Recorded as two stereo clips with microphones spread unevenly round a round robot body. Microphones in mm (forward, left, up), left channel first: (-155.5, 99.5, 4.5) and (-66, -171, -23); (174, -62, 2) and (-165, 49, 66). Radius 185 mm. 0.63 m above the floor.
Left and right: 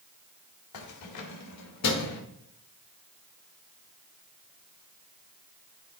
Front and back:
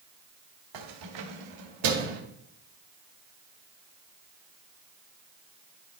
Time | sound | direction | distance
0.7 | keys jangling | 125° left | 1.4 m